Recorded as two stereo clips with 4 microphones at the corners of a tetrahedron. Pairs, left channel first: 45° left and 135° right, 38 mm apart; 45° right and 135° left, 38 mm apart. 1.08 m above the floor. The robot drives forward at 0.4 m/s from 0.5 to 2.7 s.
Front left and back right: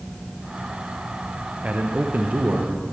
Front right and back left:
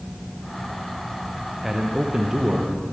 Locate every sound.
1.6 s a man speaking: 145° right, 0.6 m; by 2.7 s 165° right, 0.9 m